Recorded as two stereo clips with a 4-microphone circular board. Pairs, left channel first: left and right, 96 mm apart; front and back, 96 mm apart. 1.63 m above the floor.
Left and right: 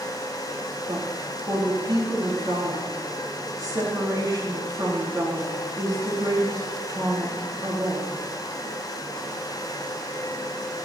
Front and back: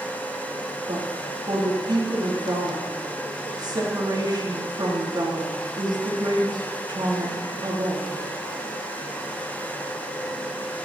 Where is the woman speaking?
135° right, 3.5 m.